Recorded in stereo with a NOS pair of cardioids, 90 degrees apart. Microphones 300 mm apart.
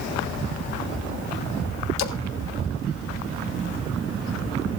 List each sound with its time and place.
2.0 s a splash: 60° left, 1.7 m